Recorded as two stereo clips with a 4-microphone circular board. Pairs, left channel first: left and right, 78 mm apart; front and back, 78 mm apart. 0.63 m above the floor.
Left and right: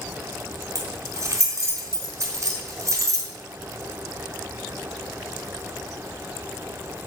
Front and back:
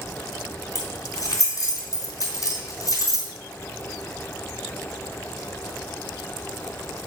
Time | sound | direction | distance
0.8 | keys jangling | 40° right | 3.5 m